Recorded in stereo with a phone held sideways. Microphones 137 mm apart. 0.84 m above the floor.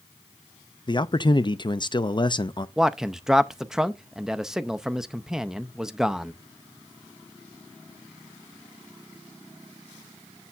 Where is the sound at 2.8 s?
5° right (ahead or behind), 0.5 m.